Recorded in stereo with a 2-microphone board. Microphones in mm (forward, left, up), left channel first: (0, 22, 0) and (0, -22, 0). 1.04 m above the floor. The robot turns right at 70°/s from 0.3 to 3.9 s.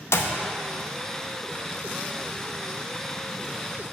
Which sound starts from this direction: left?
A clap, at 0.1 s.